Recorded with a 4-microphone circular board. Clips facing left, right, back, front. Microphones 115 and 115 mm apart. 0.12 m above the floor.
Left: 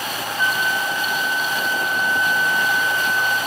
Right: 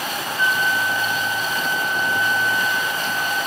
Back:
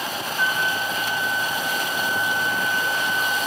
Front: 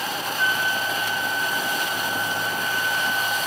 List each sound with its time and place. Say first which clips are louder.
0.4 s a flute: right 1 dB, back 1 dB; 50° left, 5.5 m